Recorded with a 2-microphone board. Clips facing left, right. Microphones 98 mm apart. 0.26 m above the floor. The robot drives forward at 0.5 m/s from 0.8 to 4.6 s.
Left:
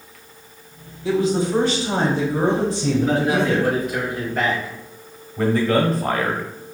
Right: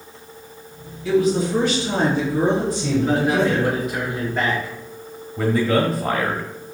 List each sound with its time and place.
1.1 s a woman speaking: 25° left (ahead or behind), 1.2 m
3.0 s a man speaking: 5° right (ahead or behind), 1.8 m
5.4 s a man speaking: centre (ahead or behind), 0.9 m